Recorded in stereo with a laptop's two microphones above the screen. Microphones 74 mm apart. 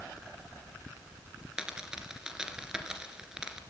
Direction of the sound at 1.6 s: 10° right (ahead or behind).